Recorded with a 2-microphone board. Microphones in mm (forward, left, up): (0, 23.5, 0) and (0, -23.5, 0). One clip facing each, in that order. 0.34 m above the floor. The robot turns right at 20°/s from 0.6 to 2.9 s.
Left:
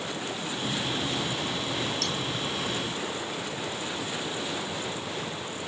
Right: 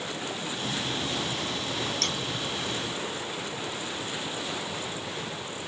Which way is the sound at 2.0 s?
50° right (ahead or behind).